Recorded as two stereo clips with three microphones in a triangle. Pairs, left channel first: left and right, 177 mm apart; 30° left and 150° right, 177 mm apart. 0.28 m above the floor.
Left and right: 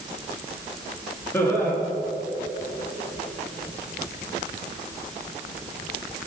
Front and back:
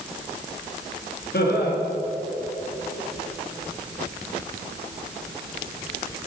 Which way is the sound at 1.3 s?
15° left.